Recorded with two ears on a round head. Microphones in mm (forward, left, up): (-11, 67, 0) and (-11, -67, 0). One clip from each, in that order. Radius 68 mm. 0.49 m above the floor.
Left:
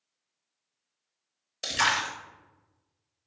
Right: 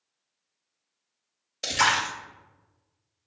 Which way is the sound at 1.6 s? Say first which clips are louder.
Right 3 dB; 10° left (ahead or behind).